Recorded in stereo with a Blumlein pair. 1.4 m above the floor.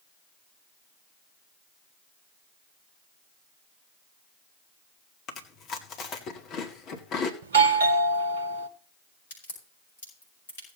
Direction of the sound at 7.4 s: 65° right.